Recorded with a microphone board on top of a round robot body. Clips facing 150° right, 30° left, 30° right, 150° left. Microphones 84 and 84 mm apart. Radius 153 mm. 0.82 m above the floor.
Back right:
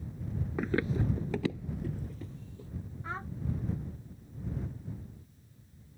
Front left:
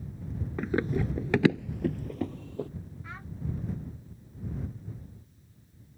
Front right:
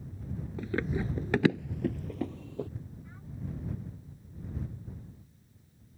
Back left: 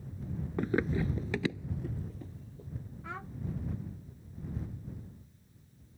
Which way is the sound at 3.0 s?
155° left.